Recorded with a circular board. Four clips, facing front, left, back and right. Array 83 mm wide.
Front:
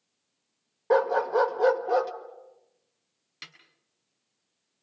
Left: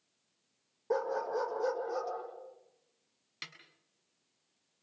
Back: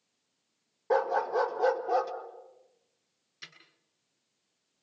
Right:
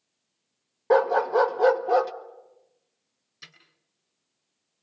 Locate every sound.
0.9 s a dog barking: 65° right, 1.6 m
3.4 s a snare drum: 50° left, 6 m